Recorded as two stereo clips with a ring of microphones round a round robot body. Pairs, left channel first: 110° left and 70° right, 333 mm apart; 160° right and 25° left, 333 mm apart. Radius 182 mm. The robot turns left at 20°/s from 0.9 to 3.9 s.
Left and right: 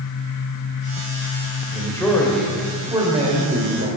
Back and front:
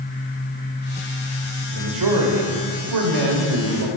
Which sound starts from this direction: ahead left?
A man speaking, at 1.7 s.